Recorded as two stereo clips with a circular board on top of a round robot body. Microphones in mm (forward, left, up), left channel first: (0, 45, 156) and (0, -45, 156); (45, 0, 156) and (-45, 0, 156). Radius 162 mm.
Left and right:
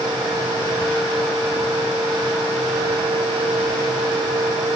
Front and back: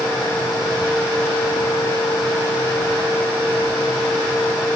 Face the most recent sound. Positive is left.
No sound to turn to.